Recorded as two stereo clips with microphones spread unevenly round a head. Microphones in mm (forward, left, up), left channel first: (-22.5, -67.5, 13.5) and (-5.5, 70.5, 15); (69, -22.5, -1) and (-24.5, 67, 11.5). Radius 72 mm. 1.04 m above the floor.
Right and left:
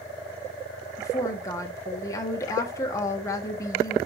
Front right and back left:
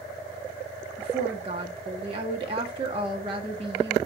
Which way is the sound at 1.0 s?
165° right.